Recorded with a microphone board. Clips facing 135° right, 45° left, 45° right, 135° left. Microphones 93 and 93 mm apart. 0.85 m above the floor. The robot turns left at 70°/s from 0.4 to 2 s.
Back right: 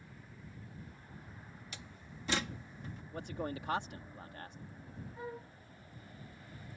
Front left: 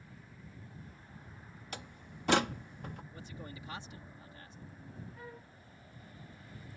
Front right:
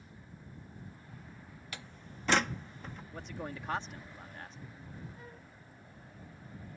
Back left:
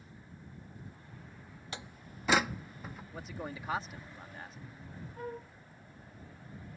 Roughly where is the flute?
Behind.